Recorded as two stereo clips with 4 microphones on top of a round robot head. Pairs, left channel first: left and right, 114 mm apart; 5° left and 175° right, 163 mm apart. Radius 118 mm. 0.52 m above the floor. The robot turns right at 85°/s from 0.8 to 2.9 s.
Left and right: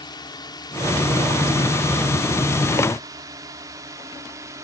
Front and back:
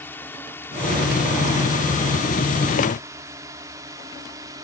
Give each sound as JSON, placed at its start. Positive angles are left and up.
{"t": 0.0, "sound": "a drone", "azimuth_deg": 75}